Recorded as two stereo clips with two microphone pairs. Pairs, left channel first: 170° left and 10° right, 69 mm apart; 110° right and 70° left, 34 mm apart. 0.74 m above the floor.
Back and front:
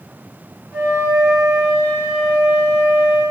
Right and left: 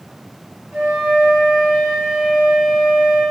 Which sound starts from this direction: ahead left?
A flute, at 0.7 s.